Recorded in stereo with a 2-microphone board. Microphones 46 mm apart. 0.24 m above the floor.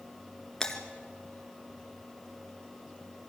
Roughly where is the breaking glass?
Centre.